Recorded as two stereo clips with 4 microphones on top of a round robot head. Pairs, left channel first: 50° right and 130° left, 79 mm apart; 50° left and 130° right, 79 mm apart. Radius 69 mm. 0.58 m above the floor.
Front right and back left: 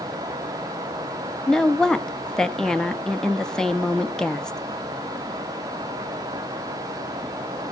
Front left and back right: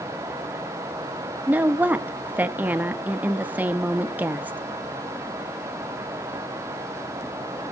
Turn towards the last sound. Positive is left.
turn(degrees=-115)